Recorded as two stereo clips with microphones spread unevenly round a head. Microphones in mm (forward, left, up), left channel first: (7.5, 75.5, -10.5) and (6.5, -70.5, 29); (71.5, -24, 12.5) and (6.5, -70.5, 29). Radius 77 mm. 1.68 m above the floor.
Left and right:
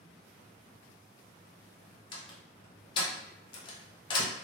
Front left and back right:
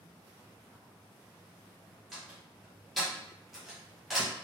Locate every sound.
2.1 s a door slam: 150° left, 0.5 m